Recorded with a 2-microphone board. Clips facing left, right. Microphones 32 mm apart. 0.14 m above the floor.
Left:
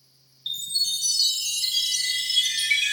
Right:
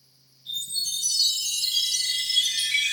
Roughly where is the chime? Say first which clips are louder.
Left 3 dB; left.